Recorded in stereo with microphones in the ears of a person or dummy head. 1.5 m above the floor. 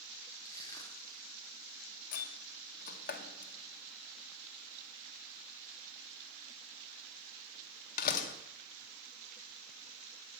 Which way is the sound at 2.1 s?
55° left (ahead or behind).